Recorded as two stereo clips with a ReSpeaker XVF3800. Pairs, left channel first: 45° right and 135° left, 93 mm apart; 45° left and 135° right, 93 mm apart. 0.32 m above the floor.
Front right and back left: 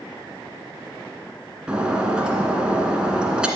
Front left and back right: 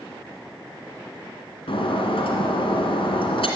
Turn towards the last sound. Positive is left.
turn(degrees=55)